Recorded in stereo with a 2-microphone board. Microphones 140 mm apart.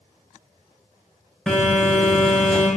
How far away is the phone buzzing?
About 1.5 m.